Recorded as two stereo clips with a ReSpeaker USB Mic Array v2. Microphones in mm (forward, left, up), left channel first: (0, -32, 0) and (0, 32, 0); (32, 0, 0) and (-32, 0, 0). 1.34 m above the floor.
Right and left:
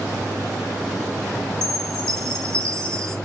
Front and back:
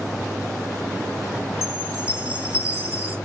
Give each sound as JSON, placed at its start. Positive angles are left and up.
{"t": 1.6, "sound": "a chime", "azimuth_deg": -15, "distance_m": 1.4}